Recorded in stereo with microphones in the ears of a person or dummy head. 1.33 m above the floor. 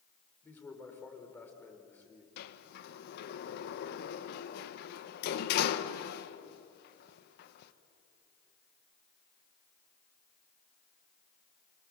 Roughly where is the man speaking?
Centre.